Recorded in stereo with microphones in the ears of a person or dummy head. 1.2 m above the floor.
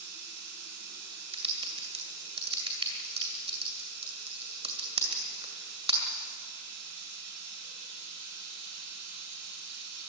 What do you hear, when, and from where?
0.0 s running water: 55° right (ahead or behind), 8.5 m
1.3 s typing on a keyboard: 35° right (ahead or behind), 2 m